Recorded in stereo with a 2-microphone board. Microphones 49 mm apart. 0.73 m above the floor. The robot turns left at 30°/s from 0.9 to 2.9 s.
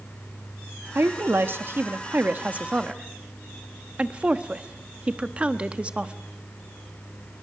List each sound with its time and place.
0.9 s a woman speaking: 50° right (ahead or behind), 1.0 m; by 6.2 s 25° right (ahead or behind), 1.0 m